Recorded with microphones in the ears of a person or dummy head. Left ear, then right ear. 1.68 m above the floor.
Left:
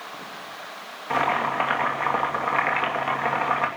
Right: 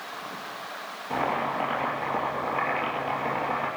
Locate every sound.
1.1 s boiling: 55° left (ahead or behind), 3 m